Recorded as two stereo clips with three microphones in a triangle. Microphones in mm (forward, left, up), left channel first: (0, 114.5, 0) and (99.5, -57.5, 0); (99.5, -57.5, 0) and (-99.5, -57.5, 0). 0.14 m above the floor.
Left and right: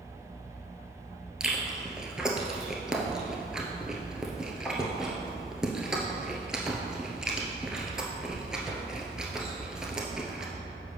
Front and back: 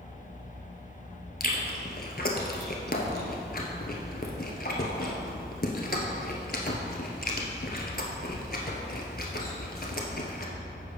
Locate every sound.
1.4 s chewing: 25° left, 1.2 m